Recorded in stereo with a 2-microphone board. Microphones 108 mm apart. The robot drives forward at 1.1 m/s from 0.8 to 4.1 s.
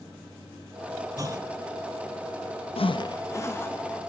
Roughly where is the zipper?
Left.